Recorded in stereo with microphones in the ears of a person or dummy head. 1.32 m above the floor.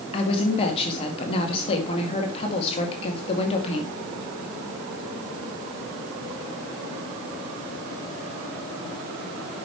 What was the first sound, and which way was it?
A woman speaking, 35° left (ahead or behind).